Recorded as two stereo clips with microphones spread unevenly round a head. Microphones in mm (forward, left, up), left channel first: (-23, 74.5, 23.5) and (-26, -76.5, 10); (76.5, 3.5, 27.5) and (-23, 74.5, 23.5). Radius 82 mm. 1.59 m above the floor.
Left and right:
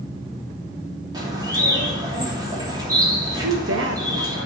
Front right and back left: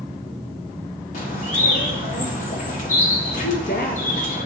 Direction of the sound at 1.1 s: 20° right.